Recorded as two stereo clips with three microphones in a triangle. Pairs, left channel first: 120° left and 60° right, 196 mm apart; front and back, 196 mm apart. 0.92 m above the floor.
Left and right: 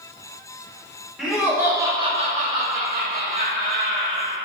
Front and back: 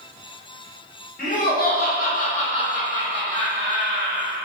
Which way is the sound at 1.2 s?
30° left.